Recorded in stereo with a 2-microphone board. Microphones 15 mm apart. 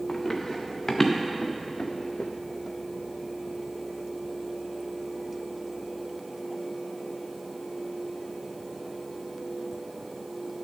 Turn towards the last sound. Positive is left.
turn(degrees=55)  # may be behind; listen again after turning